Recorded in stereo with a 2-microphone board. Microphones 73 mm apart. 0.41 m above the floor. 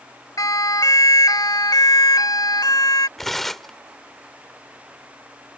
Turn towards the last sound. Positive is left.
turn(degrees=5)  # may be behind; listen again after turning